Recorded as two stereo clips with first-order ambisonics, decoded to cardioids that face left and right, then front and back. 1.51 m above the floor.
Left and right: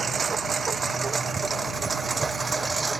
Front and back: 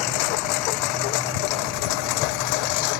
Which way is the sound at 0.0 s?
20° right.